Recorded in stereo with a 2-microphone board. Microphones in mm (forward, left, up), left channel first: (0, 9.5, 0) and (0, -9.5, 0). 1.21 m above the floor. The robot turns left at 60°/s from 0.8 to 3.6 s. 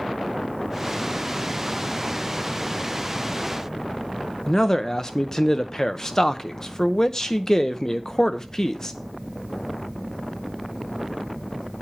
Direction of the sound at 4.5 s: 30° left (ahead or behind).